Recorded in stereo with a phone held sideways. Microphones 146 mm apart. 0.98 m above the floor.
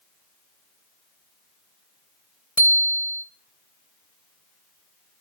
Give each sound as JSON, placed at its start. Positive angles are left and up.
{"t": 2.6, "sound": "a bicycle bell", "side_deg": -10, "distance_m": 3.0}